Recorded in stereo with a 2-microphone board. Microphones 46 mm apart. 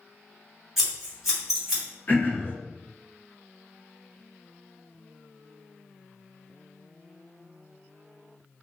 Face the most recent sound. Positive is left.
turn(degrees=40)  # may be behind; listen again after turning